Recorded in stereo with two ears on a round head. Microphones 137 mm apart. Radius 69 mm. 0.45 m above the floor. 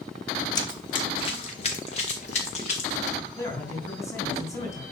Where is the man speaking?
20° left (ahead or behind), 3.5 m.